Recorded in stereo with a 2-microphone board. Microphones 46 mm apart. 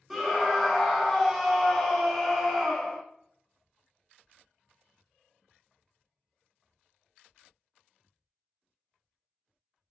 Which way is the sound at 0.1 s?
5° right (ahead or behind).